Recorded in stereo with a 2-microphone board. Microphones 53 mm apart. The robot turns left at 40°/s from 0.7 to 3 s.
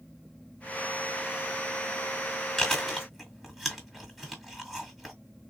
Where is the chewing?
15° left (ahead or behind), 1.7 m; by 5.2 s centre (ahead or behind), 1.7 m.